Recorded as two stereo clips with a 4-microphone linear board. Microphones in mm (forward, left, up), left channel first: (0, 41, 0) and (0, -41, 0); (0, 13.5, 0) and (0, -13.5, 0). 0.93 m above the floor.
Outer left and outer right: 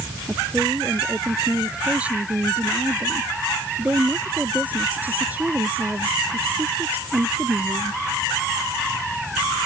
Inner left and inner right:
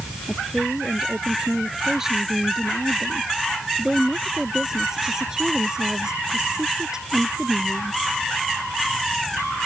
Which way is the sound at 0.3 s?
15° right (ahead or behind).